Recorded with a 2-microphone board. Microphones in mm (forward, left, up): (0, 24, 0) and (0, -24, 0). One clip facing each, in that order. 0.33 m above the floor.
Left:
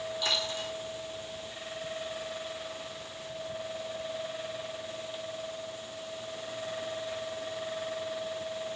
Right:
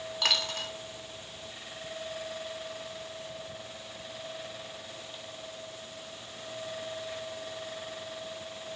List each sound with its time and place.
0.2 s a dropped coin: 75° right (ahead or behind), 1.0 m